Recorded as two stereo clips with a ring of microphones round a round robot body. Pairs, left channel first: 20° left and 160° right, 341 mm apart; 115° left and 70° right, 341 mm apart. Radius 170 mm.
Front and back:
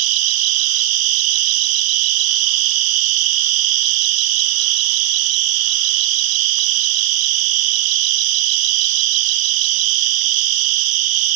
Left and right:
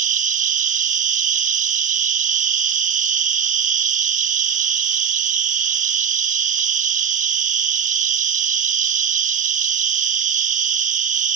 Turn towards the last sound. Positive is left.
turn(degrees=-135)